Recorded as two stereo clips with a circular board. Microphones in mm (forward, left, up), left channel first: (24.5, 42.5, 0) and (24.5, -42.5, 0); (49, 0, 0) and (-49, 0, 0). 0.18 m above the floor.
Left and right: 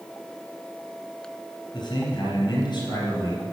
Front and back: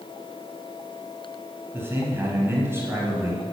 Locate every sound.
1.7 s a man speaking: 115° left, 4 m